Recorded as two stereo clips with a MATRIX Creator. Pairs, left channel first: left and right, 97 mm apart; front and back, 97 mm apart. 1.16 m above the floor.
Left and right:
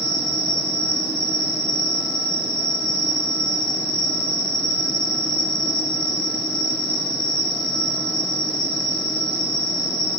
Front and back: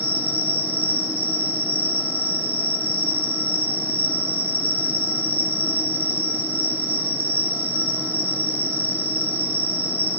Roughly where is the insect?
Behind left.